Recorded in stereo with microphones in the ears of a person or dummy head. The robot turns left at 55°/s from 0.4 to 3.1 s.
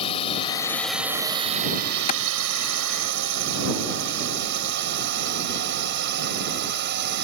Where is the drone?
30° left (ahead or behind); by 7.2 s 50° right (ahead or behind).